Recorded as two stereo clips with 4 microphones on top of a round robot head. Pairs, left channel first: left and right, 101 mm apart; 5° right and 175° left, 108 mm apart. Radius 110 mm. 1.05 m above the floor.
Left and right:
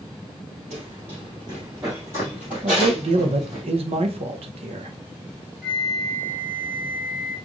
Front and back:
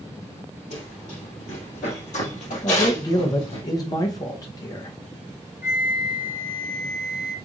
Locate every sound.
0.7 s running footsteps: 45° right, 1.8 m; by 3.6 s 5° left, 2.5 m
2.6 s a man speaking: 65° right, 0.6 m
5.6 s a flute: straight ahead, 0.7 m